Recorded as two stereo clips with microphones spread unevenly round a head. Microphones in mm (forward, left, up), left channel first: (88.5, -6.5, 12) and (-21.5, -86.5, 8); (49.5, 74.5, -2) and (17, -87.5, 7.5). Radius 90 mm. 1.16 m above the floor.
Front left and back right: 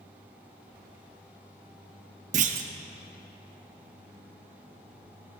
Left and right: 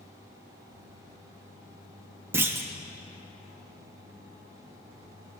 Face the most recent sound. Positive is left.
turn(degrees=-175)